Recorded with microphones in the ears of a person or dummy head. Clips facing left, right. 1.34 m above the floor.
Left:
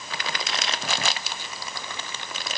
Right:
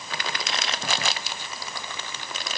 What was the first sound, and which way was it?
Only background noise.